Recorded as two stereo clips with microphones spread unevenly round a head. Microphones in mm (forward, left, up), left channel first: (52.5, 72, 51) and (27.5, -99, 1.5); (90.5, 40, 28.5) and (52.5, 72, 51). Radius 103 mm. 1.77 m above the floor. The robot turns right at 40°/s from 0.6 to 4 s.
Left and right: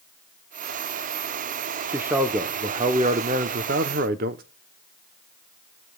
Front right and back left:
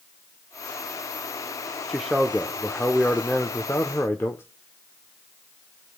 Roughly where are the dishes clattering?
I don't hear dishes clattering.